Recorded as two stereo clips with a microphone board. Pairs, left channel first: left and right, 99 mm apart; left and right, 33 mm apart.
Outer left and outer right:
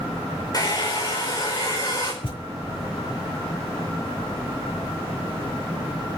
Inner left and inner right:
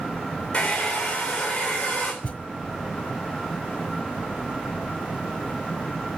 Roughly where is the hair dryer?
Left.